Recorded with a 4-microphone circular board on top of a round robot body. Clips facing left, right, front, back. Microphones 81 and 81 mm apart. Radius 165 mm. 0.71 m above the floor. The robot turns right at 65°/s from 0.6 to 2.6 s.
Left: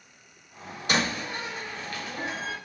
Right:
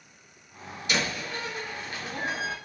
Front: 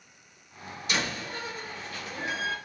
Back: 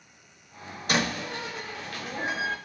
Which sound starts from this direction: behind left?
A door slam, at 0.9 s.